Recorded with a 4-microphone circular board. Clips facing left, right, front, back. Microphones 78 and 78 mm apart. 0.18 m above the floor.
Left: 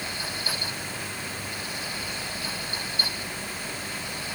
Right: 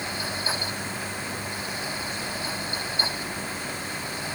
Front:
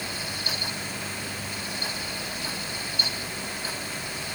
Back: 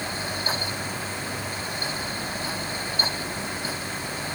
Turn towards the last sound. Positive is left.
No sound to turn to.